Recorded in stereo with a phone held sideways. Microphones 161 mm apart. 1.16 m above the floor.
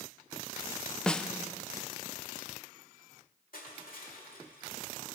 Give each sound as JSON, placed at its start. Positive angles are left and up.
{"t": 1.1, "sound": "a snare drum", "side_deg": 5, "distance_m": 0.5}
{"t": 3.5, "sound": "crushing", "side_deg": 70, "distance_m": 1.7}